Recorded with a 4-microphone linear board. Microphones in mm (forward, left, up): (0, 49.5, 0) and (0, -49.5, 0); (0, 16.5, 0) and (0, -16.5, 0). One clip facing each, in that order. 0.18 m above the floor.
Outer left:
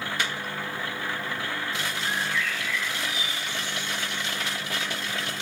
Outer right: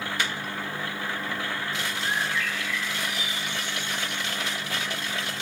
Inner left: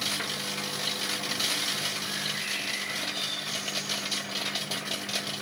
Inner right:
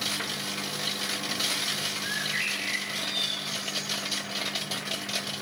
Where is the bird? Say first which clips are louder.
Outer right 1 dB, inner right 3 dB; 55° right (ahead or behind), 4.5 m.